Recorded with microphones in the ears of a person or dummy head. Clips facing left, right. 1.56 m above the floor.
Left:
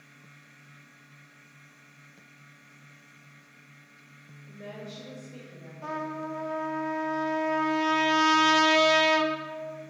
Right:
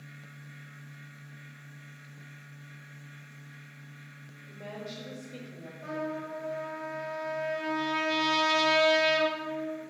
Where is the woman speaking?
15° left (ahead or behind), 1.3 m; by 5.7 s 45° right (ahead or behind), 0.7 m.